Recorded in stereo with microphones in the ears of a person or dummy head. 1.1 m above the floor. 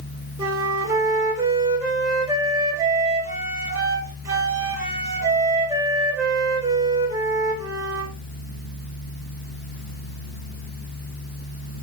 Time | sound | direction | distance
0.4 | a flute | 15° right (ahead or behind) | 2.5 m